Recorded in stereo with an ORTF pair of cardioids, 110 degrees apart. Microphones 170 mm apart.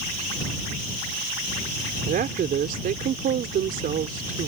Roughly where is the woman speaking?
Ahead right.